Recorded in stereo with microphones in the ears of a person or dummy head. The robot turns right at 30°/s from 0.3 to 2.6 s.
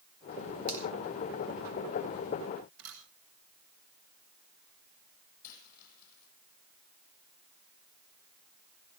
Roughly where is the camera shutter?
Right.